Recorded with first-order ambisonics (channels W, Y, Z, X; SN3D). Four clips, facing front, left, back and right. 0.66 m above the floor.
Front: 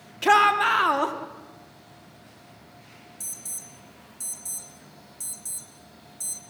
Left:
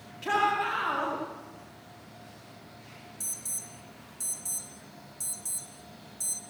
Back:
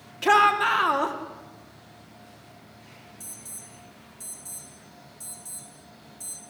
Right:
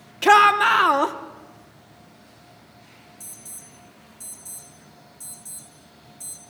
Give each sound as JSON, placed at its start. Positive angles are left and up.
{"t": 0.2, "sound": "a shout", "azimuth_deg": -85, "distance_m": 1.6}
{"t": 3.2, "sound": "an alarm", "azimuth_deg": 40, "distance_m": 2.0}